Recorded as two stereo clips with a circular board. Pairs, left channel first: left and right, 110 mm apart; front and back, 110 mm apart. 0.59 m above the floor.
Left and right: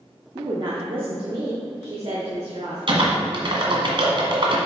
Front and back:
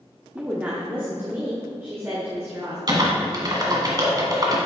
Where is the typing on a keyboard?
130° right, 1.5 m.